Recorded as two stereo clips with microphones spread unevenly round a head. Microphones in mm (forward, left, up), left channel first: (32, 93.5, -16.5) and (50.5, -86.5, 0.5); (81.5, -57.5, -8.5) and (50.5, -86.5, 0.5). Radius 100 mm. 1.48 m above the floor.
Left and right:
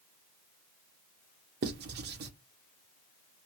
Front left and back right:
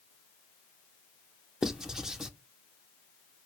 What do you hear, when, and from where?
1.6 s writing: 55° right, 0.6 m